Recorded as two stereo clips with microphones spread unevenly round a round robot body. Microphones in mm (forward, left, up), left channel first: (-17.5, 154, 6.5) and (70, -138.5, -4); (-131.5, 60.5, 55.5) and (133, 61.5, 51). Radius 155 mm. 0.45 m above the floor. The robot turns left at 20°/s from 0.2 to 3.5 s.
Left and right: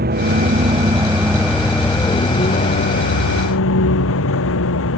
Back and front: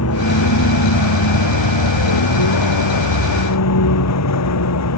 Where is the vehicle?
135° right; by 5.0 s 160° left.